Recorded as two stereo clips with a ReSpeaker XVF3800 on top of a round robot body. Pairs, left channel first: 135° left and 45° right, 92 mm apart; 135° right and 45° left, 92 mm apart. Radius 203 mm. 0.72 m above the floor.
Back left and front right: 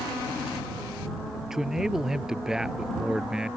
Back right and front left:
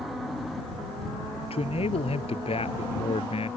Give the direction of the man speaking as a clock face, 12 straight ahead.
4 o'clock.